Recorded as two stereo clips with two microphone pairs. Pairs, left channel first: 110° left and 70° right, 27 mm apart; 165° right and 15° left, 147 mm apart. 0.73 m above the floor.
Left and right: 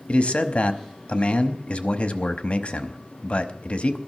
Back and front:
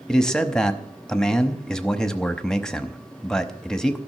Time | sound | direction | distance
0.1 | a man speaking | 110° left | 0.9 m